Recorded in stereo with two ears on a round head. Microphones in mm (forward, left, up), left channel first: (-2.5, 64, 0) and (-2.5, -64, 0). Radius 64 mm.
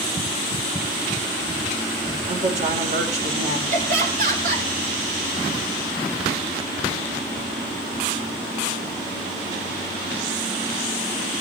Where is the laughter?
60° right (ahead or behind), 4.5 m.